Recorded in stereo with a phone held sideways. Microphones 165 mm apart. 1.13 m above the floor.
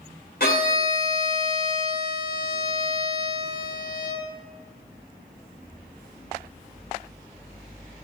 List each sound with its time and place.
0.4 s a violin: 70° left (ahead or behind), 2 m